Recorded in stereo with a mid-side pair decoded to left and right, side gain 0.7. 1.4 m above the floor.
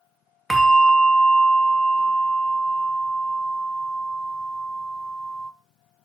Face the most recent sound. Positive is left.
turn(degrees=5)